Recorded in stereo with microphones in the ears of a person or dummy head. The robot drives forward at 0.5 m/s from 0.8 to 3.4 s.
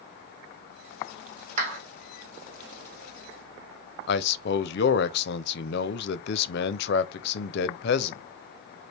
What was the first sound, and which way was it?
A clap, 45° right (ahead or behind).